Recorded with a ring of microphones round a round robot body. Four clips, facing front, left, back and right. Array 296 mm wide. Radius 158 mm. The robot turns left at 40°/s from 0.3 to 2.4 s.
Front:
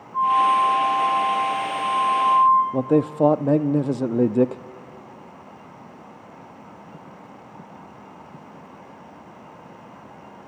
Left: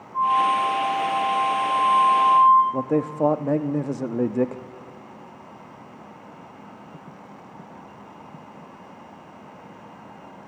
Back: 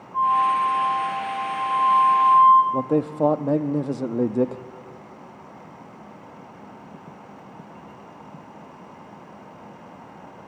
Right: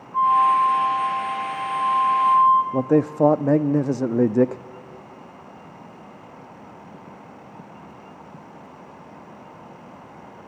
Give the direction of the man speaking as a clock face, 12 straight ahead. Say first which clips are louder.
Right 4 dB, front 3 dB; 2 o'clock.